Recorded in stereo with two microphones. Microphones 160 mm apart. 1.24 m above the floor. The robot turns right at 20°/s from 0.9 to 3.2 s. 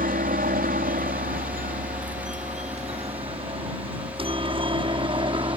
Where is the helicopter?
65° right (ahead or behind); by 5.6 s 30° right (ahead or behind).